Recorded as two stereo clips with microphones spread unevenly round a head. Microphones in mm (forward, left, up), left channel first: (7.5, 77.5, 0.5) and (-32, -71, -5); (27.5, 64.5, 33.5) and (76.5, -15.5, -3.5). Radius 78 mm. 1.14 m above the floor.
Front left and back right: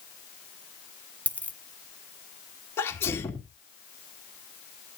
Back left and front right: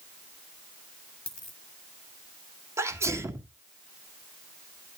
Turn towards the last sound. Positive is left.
turn(degrees=0)